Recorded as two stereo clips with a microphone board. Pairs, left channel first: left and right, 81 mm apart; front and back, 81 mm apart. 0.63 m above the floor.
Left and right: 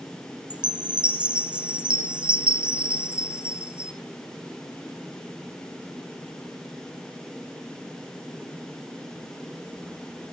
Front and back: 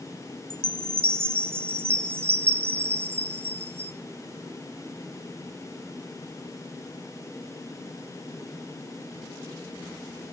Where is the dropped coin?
I don't hear a dropped coin.